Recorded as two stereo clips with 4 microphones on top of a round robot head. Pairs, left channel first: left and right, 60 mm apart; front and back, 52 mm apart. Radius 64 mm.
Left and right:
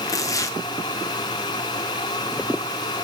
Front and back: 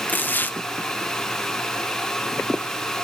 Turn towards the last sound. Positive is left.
turn(degrees=55)